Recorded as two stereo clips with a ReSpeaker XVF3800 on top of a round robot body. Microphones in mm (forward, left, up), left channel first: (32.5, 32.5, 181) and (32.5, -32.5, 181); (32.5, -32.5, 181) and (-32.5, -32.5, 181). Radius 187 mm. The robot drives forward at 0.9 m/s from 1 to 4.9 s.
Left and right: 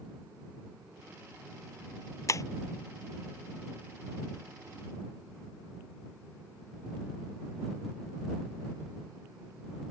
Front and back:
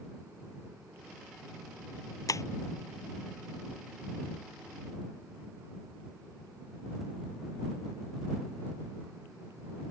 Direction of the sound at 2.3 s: 45° left.